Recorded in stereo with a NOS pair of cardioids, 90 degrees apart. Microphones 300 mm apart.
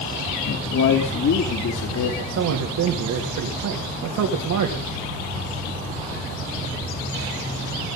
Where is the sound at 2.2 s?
70° right, 3 m.